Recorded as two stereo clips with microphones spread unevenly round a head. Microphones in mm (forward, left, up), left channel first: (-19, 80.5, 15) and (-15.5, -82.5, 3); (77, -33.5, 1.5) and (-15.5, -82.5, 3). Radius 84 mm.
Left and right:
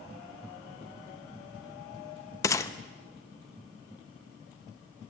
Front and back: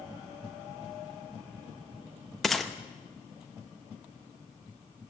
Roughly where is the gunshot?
Behind left.